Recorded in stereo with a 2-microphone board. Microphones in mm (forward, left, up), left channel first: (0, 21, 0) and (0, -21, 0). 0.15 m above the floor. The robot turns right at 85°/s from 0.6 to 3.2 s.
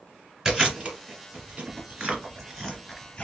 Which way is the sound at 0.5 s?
10° right (ahead or behind).